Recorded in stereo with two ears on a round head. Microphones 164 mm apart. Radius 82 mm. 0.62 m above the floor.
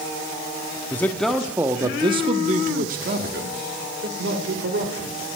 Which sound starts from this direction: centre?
A man speaking, at 0.9 s.